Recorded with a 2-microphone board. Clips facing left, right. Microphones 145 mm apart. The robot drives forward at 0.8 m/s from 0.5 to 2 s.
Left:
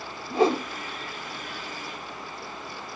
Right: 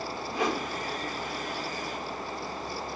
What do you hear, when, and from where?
0.3 s a whoosh: 30° left (ahead or behind), 1.2 m